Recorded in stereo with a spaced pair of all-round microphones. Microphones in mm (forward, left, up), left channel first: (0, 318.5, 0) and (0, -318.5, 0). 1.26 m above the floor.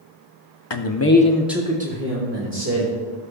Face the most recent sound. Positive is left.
turn(degrees=-30)  # may be behind; listen again after turning